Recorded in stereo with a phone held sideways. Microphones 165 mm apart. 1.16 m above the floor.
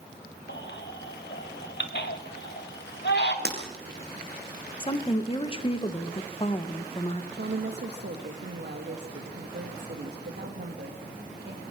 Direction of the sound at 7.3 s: 80° right.